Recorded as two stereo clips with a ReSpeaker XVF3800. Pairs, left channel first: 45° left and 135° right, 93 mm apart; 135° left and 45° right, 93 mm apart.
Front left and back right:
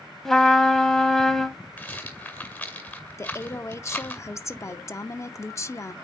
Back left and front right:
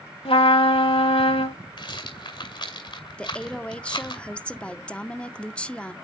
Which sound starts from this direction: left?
A woman speaking, at 3.2 s.